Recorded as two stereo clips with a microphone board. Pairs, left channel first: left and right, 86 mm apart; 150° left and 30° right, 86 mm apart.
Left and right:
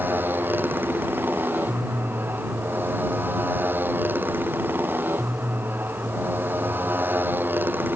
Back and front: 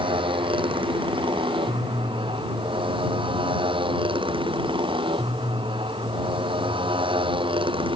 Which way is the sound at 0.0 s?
25° right.